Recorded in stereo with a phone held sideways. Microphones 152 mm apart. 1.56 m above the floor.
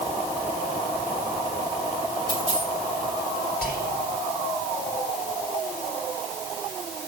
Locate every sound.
2.3 s a dropped coin: 35° right (ahead or behind), 6.5 m
3.6 s whispering: 85° right, 5.5 m